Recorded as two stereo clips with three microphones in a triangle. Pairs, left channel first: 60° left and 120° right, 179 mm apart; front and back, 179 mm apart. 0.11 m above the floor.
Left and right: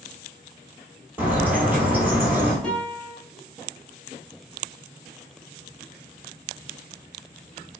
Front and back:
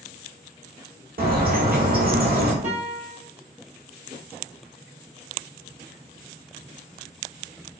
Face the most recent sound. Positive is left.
turn(degrees=145)